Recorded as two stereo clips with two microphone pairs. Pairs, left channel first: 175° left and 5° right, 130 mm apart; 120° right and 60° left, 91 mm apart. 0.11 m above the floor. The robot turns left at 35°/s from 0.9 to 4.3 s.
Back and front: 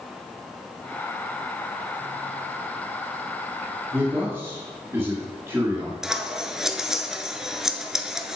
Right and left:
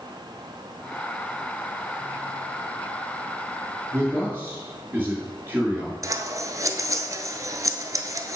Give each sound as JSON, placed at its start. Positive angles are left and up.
{"t": 3.9, "sound": "a man speaking", "azimuth_deg": 50, "distance_m": 1.8}
{"t": 6.0, "sound": "scissors", "azimuth_deg": 75, "distance_m": 0.5}